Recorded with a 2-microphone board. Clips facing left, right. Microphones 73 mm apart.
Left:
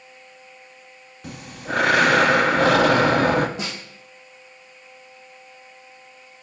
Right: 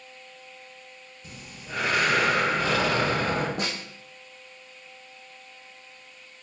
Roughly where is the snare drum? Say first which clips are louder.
Even; right.